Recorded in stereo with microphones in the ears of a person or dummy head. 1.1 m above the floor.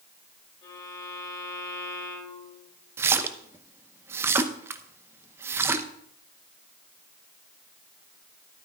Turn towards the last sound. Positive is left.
turn(degrees=-15)  # may be behind; listen again after turning